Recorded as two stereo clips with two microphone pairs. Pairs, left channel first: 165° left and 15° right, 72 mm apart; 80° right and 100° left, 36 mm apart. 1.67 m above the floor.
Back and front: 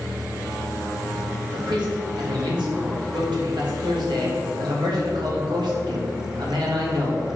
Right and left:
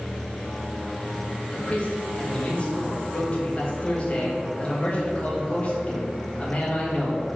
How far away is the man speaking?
About 1.9 m.